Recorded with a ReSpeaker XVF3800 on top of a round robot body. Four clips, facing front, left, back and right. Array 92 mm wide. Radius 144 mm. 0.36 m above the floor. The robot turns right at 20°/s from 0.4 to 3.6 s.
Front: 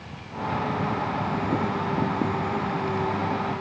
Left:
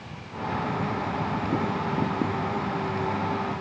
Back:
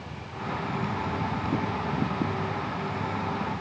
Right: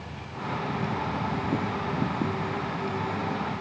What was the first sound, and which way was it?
Only background noise.